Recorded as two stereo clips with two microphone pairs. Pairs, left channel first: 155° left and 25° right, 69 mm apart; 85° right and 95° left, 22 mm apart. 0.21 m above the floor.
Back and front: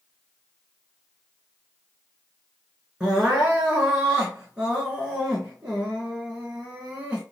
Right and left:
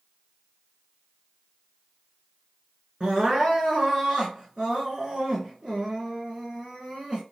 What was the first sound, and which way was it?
Crying, 50° left.